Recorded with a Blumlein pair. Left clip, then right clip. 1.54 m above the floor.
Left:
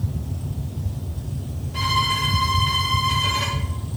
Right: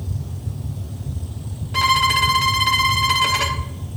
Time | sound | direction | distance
1.7 | a violin | 60° right | 0.8 m